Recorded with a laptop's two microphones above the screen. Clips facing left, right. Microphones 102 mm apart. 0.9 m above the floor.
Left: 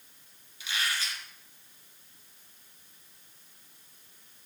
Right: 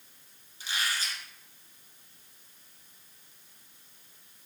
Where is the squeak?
40° right (ahead or behind), 1.9 m.